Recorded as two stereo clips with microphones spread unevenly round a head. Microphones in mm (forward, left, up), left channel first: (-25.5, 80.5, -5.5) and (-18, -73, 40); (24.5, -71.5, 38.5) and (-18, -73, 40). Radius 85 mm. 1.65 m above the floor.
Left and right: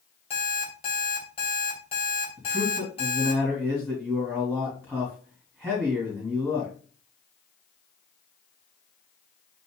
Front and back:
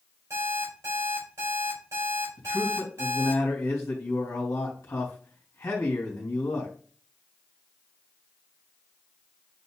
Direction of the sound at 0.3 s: 150° left.